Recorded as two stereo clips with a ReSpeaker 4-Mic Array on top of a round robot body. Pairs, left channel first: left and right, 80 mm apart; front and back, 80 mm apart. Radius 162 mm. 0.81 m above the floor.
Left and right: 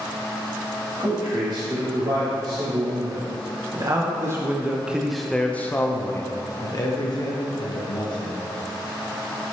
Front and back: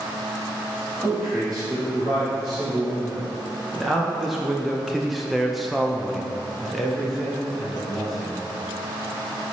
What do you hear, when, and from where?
1.0 s a man speaking: 95° right, 2.5 m; by 8.4 s 90° left, 2.0 m